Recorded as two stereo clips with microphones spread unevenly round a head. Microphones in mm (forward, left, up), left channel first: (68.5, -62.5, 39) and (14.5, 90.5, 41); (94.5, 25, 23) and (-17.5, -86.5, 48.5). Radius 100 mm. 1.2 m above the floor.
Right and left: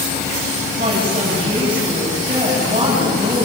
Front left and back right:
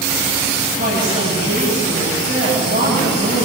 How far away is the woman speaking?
About 8 m.